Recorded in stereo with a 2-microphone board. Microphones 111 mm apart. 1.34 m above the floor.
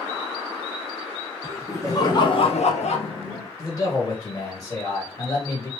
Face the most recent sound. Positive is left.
turn(degrees=30)  # may be behind; listen again after turning